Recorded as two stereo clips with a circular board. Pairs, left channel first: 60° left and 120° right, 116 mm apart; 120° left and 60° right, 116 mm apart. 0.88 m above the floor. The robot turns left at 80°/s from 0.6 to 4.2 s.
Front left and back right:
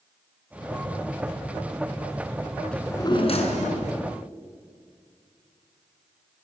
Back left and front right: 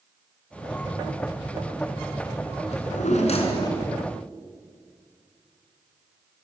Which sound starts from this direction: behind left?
A drawer, at 2.7 s.